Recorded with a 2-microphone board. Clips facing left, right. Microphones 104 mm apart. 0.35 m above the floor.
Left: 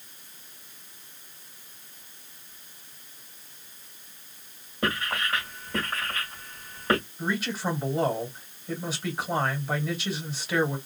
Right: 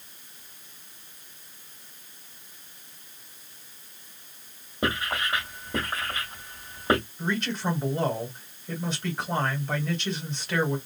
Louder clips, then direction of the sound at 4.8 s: Right 1 dB; 15° right (ahead or behind).